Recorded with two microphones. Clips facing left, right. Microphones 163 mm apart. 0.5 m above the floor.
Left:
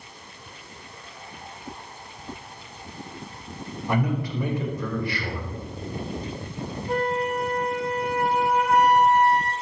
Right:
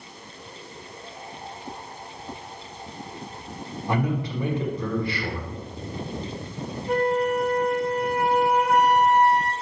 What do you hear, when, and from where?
3.9 s a man speaking: 25° right (ahead or behind), 1.6 m
6.9 s a flute: 80° right, 3 m